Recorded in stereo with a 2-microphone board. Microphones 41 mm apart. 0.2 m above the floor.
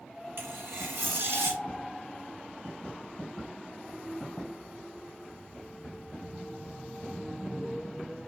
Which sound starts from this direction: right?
Tearing paper, at 0.4 s.